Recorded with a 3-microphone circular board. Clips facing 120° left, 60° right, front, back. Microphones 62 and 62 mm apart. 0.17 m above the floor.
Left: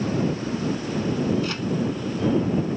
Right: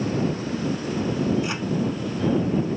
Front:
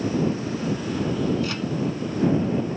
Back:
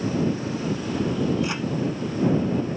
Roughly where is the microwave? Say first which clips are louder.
Even, back 1 dB; behind right.